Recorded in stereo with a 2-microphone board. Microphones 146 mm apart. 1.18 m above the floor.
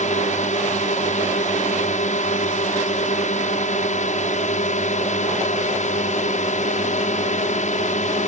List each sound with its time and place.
0.0 s a drone: 55° left (ahead or behind)